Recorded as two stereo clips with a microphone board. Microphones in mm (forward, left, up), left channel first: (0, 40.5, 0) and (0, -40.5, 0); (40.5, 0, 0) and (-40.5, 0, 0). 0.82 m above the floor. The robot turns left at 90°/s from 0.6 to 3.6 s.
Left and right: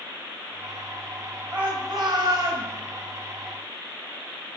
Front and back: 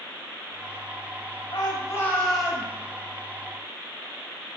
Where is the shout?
20° right, 6 m; by 2.7 s 125° right, 6 m.